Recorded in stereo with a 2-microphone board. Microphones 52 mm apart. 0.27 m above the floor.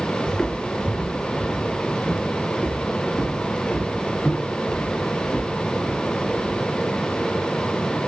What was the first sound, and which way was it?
Footsteps, 15° left (ahead or behind).